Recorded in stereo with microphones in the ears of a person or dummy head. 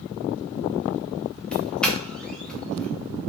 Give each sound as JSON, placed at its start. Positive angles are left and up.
{"t": 1.5, "sound": "a doorbell", "side_deg": 5, "distance_m": 0.7}